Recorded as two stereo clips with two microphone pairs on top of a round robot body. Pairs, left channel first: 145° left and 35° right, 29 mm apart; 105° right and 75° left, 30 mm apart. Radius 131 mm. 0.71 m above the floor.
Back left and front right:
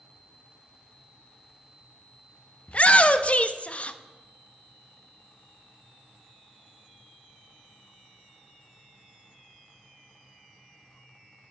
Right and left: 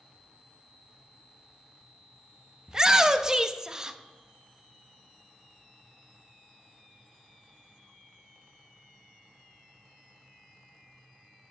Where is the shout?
145° left, 0.8 m.